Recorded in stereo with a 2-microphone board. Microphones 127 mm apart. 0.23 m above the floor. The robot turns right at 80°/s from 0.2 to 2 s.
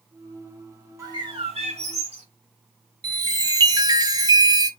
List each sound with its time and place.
1.0 s a bird: 150° right, 1.8 m; by 2.3 s 70° right, 1.8 m
3.0 s a chime: 30° right (ahead or behind), 1.1 m